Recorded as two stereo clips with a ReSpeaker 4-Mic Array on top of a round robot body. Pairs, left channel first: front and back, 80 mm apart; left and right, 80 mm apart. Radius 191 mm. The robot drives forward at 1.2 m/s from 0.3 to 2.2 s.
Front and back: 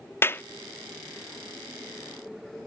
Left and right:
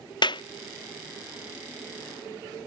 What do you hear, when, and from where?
0.2 s a clap: 60° left; by 0.4 s 65° left